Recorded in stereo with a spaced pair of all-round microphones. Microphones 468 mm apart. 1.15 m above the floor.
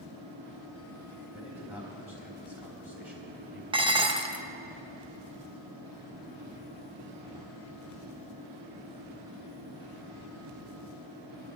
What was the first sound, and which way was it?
A fan, 80° right.